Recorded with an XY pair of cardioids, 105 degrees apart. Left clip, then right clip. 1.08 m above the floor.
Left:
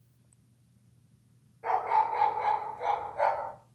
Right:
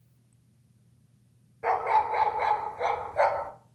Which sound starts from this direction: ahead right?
A dog barking, at 1.6 s.